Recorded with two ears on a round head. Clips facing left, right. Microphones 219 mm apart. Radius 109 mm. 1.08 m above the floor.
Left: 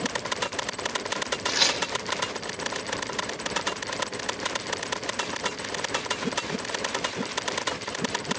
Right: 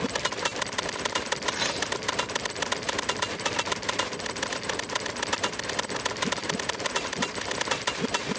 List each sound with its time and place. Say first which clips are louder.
1.5 s tearing paper: left 1 dB; 60° left (ahead or behind), 2.5 m